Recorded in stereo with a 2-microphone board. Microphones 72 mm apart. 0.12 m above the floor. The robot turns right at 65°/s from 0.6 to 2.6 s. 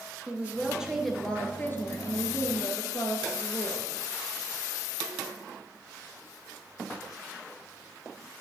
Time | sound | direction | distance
0.3 | a woman speaking | 25° right | 2.5 m